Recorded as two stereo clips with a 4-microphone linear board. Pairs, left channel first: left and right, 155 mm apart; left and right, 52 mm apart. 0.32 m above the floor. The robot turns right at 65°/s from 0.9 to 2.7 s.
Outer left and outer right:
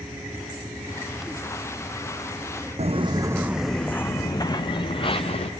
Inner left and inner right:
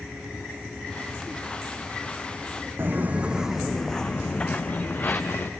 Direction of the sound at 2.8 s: 45° right (ahead or behind).